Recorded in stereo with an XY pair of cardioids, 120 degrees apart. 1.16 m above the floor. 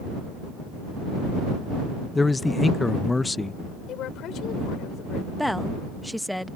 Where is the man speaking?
15° left.